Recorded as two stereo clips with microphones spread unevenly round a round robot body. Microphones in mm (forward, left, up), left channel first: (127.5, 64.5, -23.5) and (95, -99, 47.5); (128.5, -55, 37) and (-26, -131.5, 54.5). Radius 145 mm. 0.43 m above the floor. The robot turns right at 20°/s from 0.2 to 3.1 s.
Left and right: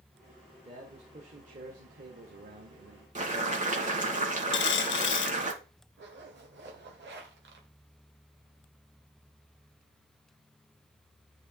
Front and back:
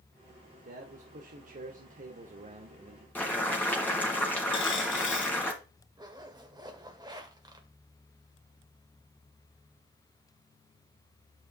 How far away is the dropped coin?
About 0.7 m.